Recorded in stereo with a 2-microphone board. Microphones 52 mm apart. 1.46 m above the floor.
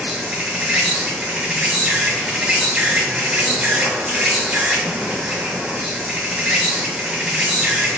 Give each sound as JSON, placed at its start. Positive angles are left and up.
{"t": 0.0, "sound": "an insect", "side_deg": -15, "distance_m": 1.0}